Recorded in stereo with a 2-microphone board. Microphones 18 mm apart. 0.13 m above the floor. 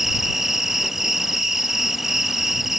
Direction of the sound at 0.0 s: 15° right (ahead or behind).